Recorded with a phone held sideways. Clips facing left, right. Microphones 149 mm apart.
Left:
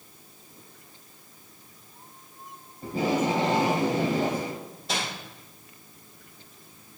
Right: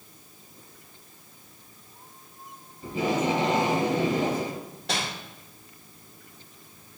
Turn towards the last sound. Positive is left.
turn(degrees=-75)  # may be behind; listen again after turning